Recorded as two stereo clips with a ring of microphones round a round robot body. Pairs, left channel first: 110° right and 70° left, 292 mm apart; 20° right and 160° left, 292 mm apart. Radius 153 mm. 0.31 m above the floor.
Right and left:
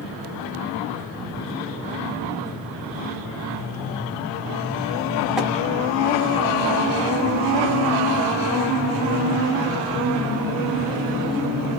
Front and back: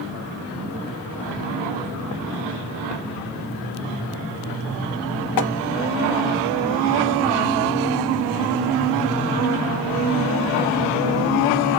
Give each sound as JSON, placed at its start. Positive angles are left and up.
{"t": 5.4, "sound": "tapping", "azimuth_deg": -20, "distance_m": 0.8}